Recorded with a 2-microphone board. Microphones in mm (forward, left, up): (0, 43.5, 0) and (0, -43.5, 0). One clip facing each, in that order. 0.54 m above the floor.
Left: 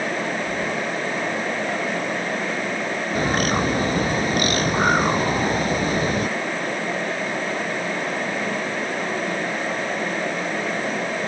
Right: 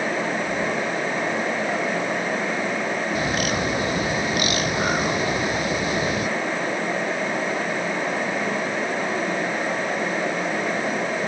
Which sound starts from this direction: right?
Keys jangling, at 0.5 s.